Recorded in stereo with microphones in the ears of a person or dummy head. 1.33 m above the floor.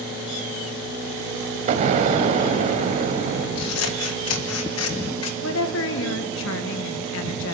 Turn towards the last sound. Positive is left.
turn(degrees=70)  # may be behind; listen again after turning